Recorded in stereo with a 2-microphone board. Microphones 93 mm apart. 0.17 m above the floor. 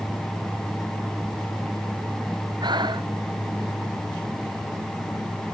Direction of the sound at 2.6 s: 55° right (ahead or behind).